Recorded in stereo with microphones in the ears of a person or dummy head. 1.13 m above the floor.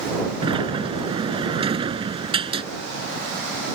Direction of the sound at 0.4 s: 30° right (ahead or behind).